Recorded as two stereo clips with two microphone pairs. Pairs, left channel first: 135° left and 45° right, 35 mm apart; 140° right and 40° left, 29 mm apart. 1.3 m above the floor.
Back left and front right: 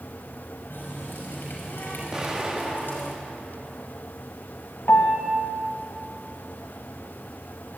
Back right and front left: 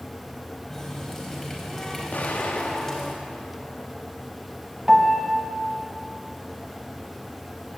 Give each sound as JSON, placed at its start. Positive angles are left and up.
{"t": 0.7, "sound": "a running tap", "azimuth_deg": 145, "distance_m": 5.0}
{"t": 2.1, "sound": "an explosion", "azimuth_deg": -120, "distance_m": 2.5}
{"t": 4.9, "sound": "a piano", "azimuth_deg": 120, "distance_m": 1.9}